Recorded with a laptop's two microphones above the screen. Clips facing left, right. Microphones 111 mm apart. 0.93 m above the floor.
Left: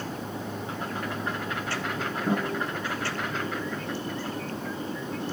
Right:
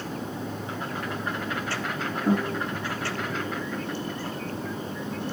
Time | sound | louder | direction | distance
2.3 | a guitar | right 3 dB | 5° right (ahead or behind) | 4 m